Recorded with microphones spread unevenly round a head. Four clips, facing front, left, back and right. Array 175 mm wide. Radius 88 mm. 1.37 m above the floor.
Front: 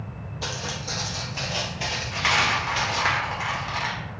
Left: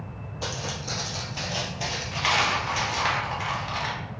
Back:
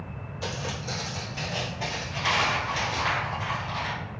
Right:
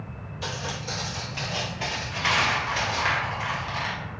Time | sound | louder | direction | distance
0.4 | footsteps | even, even | 70° left | 1.5 m
2.1 | a dropped coin | even, front 2 dB | 15° left | 1.2 m